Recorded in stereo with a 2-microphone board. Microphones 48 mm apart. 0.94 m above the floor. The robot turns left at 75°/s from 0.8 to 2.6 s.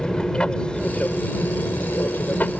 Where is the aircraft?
160° left; by 2.6 s 25° left.